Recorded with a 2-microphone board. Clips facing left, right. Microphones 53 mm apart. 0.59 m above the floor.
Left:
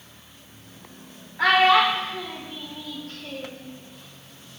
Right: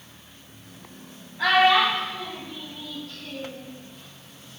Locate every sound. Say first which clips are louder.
1.4 s a child speaking: left 1 dB; 60° left (ahead or behind), 1.1 m; by 3.7 s 40° left (ahead or behind), 1.3 m